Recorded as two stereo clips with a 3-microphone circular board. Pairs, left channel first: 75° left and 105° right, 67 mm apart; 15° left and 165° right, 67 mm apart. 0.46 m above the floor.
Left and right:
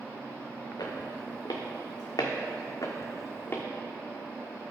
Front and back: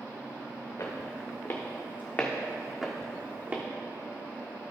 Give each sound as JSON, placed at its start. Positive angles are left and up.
{"t": 0.8, "sound": "footsteps", "azimuth_deg": 55, "distance_m": 2.0}